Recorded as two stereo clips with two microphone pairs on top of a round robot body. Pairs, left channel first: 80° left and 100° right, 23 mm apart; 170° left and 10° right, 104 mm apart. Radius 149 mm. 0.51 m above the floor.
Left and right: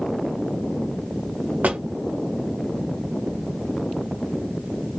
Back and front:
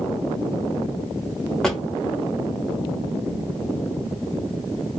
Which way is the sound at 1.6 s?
105° right.